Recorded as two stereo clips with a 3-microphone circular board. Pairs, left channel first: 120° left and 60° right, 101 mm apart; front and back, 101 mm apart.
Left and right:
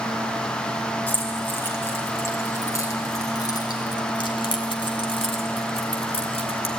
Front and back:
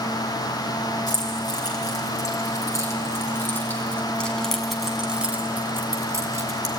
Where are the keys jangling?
45° left, 4 m; by 6.7 s 130° left, 2.5 m.